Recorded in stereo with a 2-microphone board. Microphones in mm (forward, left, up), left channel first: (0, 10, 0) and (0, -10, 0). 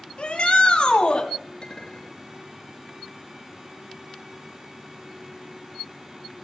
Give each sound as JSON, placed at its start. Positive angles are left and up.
{"t": 0.2, "sound": "a shout", "side_deg": 50, "distance_m": 1.8}
{"t": 1.6, "sound": "a clink", "side_deg": 35, "distance_m": 2.5}